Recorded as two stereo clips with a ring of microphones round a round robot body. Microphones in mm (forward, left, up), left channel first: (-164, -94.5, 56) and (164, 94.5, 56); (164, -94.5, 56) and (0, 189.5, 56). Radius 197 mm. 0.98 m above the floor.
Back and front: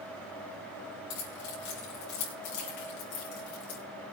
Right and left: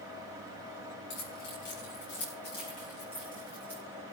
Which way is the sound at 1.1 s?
105° right.